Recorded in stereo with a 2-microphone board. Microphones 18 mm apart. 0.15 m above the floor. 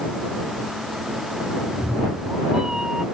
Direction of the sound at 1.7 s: 40° right (ahead or behind).